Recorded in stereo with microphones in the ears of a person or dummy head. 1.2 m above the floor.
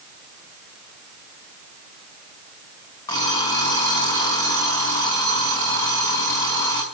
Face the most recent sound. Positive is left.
turn(degrees=25)  # may be behind; listen again after turning